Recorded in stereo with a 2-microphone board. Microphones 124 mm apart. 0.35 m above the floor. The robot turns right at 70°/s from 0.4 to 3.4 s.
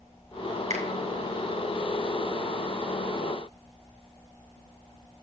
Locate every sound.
0.7 s a finger snap: 70° right (ahead or behind), 2.5 m; by 0.8 s 65° right (ahead or behind), 2.5 m